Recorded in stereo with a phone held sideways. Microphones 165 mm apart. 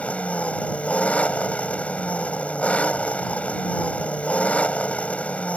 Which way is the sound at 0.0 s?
10° left (ahead or behind).